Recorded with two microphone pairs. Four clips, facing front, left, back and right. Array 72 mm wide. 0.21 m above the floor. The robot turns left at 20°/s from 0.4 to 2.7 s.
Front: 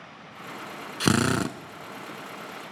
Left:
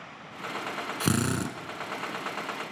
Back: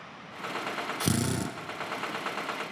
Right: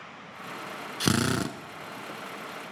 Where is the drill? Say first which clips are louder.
Right 2 dB, front 8 dB; 5° right, 1.2 m; by 1.6 s 20° right, 1.2 m.